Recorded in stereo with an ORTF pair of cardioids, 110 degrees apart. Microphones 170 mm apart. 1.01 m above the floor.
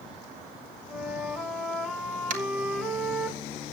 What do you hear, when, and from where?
0.9 s a flute: straight ahead, 2.5 m
2.3 s tapping: 55° right, 2.5 m